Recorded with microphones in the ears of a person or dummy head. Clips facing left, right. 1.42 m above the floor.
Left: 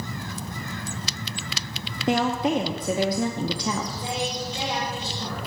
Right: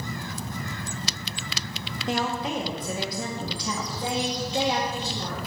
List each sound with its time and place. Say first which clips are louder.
2.1 s a woman speaking: left 6 dB; 45° left (ahead or behind), 0.7 m
4.0 s a woman speaking: right 1 dB; 50° right (ahead or behind), 2.5 m